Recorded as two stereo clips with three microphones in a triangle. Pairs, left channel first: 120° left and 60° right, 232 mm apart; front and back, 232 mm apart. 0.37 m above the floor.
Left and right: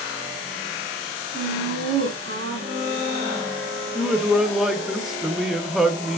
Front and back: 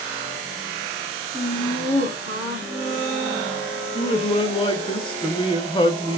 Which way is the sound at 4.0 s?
25° left.